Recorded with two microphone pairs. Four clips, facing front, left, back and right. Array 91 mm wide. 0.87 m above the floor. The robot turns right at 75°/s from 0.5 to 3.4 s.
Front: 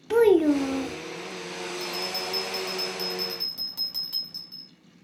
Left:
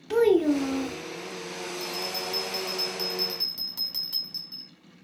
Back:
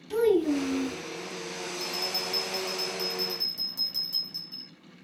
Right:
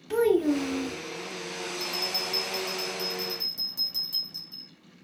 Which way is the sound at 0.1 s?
5° left.